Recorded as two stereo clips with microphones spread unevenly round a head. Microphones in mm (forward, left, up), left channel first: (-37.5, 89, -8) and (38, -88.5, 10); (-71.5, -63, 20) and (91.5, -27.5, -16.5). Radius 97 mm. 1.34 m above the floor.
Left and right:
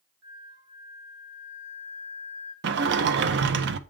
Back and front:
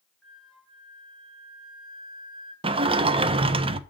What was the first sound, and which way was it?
A flute, 80° right.